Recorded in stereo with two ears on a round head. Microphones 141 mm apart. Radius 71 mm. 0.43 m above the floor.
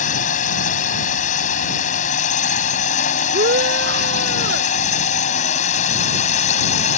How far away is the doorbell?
I don't hear a doorbell.